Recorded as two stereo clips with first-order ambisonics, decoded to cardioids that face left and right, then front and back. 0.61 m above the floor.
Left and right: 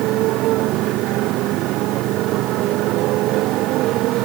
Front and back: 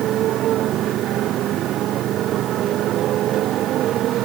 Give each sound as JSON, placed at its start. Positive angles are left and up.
{"t": 0.0, "sound": "a motorcycle", "azimuth_deg": -130}